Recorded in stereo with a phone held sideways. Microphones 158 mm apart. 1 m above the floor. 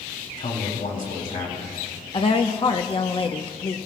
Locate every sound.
0.4 s a man speaking: 65° left (ahead or behind), 4.5 m; by 1.8 s 55° left (ahead or behind), 4.5 m
2.1 s a woman speaking: 35° left (ahead or behind), 0.8 m